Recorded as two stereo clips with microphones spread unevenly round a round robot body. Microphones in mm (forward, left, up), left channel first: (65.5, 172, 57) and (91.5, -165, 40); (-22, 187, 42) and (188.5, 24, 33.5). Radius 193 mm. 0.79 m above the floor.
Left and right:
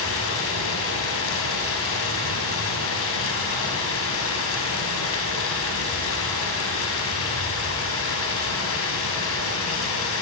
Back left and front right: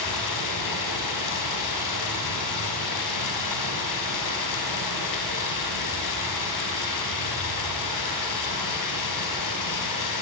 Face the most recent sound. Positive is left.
turn(degrees=155)